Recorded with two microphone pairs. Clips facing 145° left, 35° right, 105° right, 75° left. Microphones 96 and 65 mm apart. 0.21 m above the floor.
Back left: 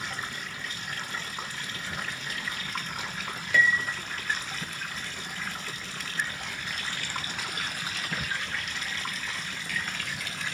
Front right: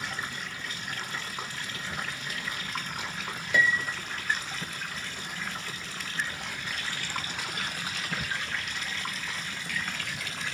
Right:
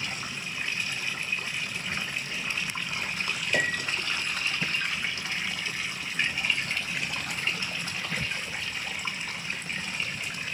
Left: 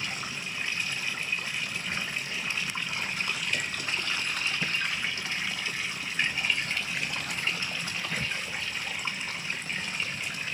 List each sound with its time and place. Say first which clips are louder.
3.5 s a piano: back left 1 dB, right 5 dB; 110° right